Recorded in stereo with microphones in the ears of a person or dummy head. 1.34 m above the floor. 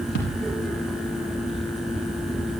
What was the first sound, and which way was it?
A thud, 70° left (ahead or behind).